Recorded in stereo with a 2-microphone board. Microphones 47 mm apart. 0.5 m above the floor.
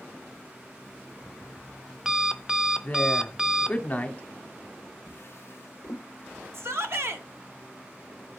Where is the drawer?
55° left (ahead or behind), 1.1 m.